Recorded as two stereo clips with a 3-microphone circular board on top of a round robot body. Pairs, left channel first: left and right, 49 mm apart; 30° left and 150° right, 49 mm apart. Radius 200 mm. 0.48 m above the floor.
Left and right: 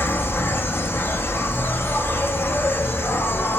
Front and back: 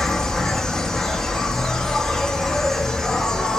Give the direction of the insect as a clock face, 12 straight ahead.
8 o'clock.